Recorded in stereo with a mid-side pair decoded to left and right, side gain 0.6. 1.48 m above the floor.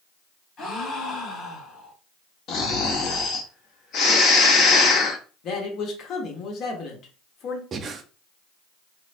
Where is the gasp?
45° left, 1.5 m.